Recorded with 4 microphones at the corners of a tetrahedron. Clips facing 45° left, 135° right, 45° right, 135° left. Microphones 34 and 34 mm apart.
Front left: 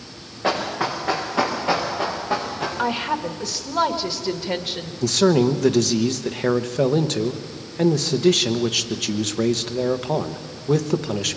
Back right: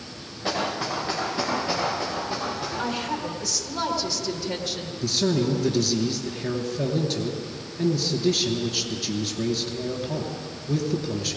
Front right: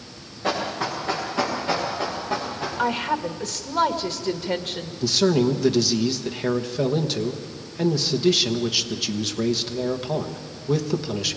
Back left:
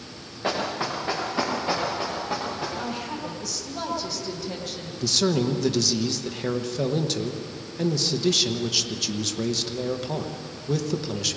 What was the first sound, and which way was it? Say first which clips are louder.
Running footsteps: front left 4 dB, front right 1 dB; 65° left.